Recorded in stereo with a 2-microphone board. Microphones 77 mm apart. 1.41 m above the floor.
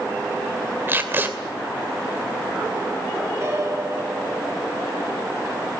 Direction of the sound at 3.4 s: 40° right (ahead or behind).